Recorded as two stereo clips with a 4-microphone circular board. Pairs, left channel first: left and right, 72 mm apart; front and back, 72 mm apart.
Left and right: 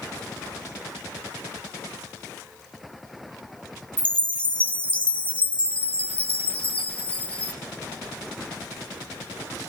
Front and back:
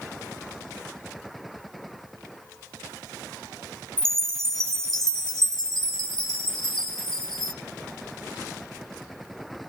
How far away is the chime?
About 1.1 m.